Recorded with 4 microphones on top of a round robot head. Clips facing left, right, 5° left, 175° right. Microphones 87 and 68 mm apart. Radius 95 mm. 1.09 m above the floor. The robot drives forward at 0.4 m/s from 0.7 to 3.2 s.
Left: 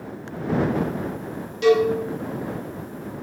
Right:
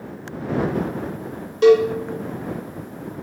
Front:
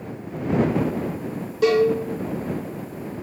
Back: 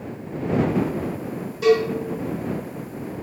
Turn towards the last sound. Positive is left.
turn(degrees=-145)